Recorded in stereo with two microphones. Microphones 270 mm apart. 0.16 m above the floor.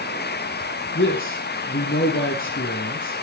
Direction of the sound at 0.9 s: 50° left (ahead or behind).